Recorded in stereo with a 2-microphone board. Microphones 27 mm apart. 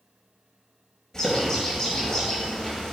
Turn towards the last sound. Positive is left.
turn(degrees=20)  # may be behind; listen again after turning